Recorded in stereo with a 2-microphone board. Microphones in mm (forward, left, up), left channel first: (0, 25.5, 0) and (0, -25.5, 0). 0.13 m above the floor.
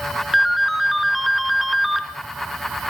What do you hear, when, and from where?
0.3 s a ringtone: centre (ahead or behind), 1.2 m